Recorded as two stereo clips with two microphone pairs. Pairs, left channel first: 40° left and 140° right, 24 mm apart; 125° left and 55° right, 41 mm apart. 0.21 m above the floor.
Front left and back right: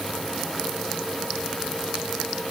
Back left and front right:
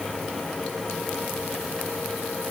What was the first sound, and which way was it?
Only background noise.